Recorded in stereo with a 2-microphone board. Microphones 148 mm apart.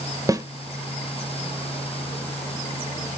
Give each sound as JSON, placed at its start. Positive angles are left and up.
{"t": 0.3, "sound": "a snare drum", "side_deg": -25, "distance_m": 0.7}